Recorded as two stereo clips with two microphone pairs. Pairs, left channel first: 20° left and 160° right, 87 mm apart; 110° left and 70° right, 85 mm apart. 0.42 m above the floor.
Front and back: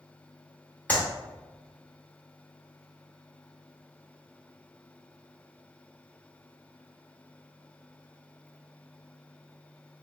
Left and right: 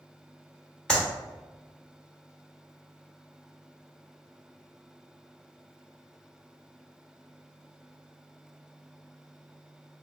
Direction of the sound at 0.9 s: 45° left.